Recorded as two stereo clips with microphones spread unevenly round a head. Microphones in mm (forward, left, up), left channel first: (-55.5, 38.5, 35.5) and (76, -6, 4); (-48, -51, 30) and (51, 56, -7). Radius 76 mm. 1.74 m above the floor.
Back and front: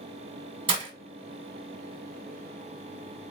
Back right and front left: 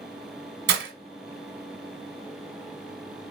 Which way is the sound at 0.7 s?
40° left.